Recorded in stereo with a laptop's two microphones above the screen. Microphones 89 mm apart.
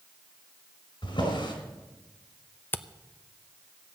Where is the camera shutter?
25° left (ahead or behind), 0.6 m.